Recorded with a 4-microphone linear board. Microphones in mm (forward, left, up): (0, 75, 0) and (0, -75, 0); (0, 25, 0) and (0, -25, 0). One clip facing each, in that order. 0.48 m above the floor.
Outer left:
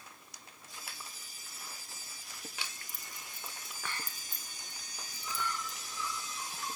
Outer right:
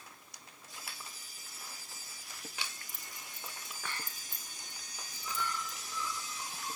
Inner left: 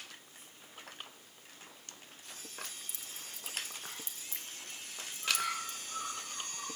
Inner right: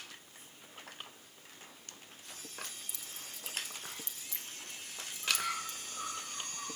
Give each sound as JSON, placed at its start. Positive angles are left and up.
{"t": 2.6, "sound": "keys jangling", "side_deg": 35, "distance_m": 1.3}
{"t": 5.2, "sound": "a bird", "side_deg": 80, "distance_m": 9.5}